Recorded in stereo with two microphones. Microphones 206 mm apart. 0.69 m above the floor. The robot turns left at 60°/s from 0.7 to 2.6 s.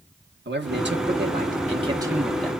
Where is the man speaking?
80° right, 1.4 m; by 2.6 s 165° left, 1.4 m.